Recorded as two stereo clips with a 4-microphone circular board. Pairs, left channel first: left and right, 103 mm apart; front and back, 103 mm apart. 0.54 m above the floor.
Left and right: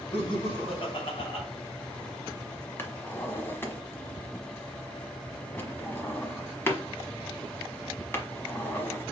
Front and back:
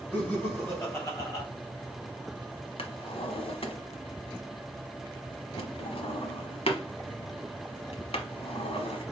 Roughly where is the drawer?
Ahead.